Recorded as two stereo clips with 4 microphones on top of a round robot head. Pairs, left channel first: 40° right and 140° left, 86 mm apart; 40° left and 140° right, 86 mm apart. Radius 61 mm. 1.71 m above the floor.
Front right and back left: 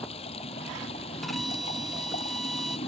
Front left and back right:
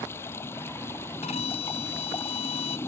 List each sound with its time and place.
0.0 s running water: 25° right
1.2 s a violin: 50° left